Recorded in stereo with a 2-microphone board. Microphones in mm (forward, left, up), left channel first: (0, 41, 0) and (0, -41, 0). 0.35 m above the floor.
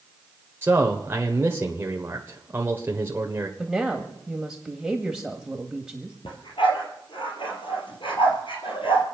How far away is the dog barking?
About 3 m.